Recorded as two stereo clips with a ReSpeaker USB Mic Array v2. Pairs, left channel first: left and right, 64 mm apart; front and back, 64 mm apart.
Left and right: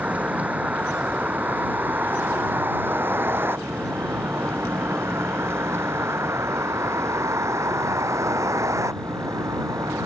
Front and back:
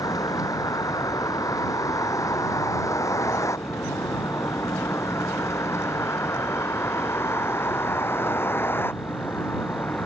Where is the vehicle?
25° right; by 10.1 s 55° right.